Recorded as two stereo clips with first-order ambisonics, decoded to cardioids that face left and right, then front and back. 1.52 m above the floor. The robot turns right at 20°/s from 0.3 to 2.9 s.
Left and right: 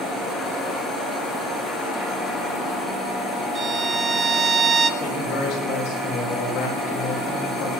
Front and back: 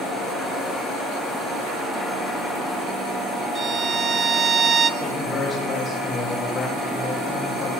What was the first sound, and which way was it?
A violin, 135° right.